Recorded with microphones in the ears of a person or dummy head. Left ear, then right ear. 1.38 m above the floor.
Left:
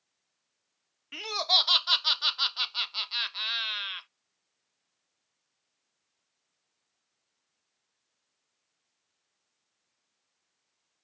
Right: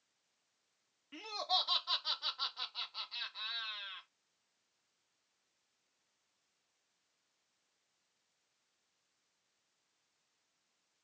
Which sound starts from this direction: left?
Laughter, at 1.1 s.